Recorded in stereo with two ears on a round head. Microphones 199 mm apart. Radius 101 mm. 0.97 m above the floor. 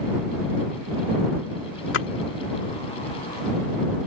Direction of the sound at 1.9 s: 55° left (ahead or behind).